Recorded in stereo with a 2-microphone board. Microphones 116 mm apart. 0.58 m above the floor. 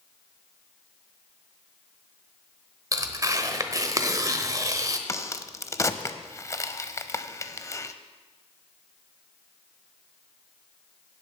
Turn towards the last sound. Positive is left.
turn(degrees=25)  # may be behind; listen again after turning